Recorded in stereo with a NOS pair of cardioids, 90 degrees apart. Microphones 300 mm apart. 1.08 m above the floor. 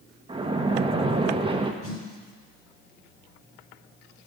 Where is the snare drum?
50° left, 5 m.